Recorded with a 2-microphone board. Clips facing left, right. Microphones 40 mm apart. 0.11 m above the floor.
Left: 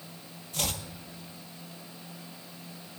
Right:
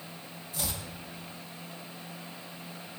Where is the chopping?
65° left (ahead or behind), 1.4 m.